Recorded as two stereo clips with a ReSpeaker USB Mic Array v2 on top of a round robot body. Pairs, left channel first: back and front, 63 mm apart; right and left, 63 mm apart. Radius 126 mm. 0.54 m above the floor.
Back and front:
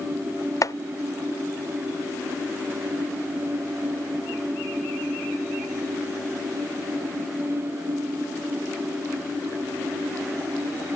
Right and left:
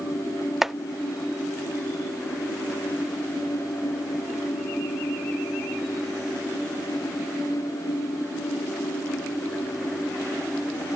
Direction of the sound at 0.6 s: 175° left.